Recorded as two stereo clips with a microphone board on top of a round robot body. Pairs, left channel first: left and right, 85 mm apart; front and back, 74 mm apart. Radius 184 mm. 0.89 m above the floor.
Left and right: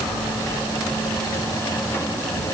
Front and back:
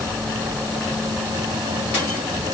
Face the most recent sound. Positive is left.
No sound to turn to.